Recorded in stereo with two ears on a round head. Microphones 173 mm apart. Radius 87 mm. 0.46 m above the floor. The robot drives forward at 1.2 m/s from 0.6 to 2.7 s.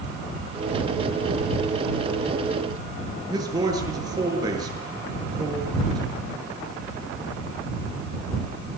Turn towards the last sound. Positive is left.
turn(degrees=-20)  # may be behind; listen again after turning